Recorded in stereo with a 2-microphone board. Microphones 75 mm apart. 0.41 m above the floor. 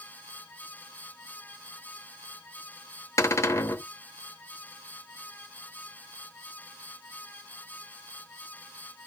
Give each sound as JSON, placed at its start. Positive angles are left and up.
{"t": 3.2, "sound": "a cupboard door", "side_deg": 40, "distance_m": 0.7}